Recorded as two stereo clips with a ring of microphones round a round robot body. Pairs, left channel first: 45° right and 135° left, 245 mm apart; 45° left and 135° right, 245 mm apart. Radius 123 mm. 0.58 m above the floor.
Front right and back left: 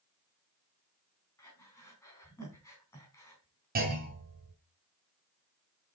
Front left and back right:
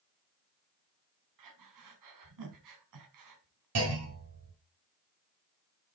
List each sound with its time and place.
1.4 s breathing: 125° right, 3.5 m
3.8 s a clunk: 165° right, 4 m